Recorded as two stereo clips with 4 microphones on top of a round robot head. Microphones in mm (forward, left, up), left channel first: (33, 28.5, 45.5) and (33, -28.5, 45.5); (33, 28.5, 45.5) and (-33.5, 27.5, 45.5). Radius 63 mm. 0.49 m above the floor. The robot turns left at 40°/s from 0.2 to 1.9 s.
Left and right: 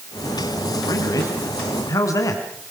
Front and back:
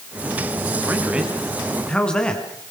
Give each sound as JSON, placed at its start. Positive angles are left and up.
{"t": 0.8, "sound": "a man speaking", "azimuth_deg": 120, "distance_m": 4.0}